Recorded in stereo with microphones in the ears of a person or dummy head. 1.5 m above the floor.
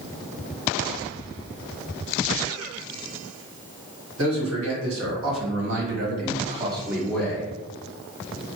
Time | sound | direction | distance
4.2 | a man speaking | 85° right | 1.5 m